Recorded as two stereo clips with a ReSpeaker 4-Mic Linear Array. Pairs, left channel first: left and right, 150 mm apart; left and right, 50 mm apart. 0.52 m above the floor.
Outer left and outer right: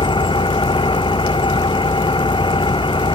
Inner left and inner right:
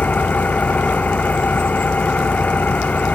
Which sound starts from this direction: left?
An engine running, at 0.0 s.